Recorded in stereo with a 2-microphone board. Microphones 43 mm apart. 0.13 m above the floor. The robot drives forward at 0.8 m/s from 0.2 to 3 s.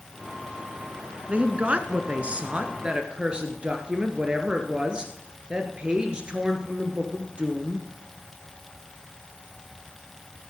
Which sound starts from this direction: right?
A woman speaking, at 1.3 s.